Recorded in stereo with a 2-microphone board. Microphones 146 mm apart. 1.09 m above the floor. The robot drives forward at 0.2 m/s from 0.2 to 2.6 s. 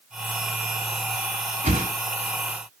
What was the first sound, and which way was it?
A whoosh, 50° right (ahead or behind).